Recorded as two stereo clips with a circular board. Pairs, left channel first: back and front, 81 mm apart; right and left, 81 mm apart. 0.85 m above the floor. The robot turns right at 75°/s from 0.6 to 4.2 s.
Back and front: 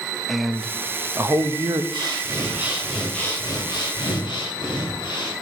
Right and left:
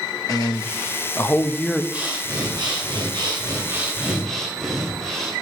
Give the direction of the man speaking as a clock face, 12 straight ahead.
3 o'clock.